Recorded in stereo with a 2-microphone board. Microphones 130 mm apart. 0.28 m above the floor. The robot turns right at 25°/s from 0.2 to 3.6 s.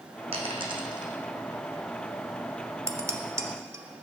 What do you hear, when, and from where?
0.3 s a dropped coin: 50° right (ahead or behind), 1.0 m; by 1.1 s 30° right (ahead or behind), 1.0 m
2.9 s dishes clattering: 20° right (ahead or behind), 0.6 m; by 3.9 s 25° right (ahead or behind), 0.6 m